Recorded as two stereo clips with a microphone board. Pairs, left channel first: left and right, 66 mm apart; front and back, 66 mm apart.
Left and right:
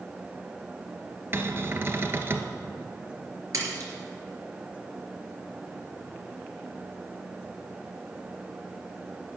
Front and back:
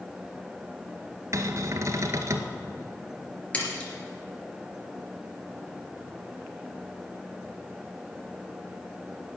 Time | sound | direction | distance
1.3 | a cupboard door | 140° right | 1.1 m
3.5 | a splash | 70° right | 3 m